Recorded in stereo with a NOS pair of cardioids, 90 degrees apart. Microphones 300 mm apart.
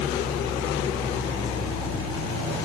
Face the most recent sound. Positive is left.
turn(degrees=15)